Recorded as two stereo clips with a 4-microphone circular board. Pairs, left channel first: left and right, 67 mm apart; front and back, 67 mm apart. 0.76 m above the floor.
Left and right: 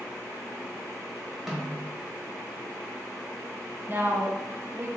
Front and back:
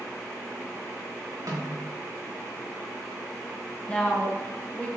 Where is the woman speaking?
60° right, 0.5 m.